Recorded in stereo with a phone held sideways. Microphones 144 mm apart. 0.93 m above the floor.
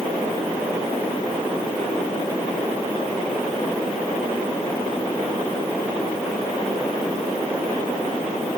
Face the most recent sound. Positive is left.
No sound to turn to.